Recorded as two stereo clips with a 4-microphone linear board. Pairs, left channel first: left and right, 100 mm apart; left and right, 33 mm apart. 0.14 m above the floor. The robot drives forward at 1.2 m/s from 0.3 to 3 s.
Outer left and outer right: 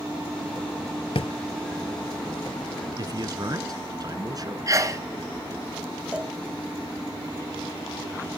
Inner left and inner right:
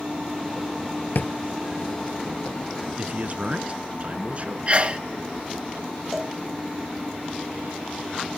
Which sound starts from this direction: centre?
A cowbell, at 6.1 s.